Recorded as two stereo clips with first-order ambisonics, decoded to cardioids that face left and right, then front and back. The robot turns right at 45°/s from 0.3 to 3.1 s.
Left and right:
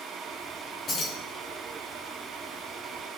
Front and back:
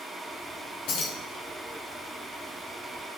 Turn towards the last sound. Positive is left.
turn(degrees=120)